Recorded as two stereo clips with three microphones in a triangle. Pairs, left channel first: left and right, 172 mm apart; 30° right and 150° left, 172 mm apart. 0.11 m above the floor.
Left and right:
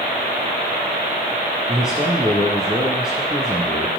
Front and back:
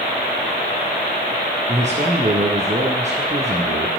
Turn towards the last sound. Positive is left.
turn(degrees=-175)